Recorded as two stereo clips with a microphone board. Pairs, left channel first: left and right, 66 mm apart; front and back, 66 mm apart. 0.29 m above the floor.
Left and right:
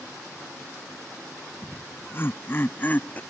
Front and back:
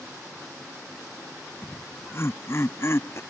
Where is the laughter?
45° left; by 3.2 s 30° left.